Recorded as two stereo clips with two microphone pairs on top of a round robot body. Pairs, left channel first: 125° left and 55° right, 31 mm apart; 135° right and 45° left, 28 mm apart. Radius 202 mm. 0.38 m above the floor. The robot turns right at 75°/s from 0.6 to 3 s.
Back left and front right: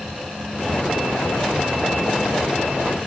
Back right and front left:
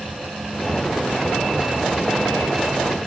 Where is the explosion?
I don't hear an explosion.